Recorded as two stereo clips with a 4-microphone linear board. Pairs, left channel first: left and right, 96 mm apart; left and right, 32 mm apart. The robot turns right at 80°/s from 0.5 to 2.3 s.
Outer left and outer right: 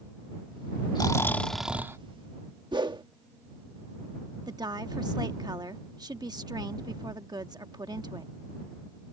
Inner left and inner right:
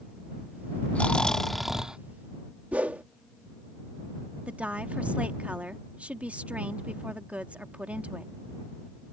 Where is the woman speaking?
45° right (ahead or behind).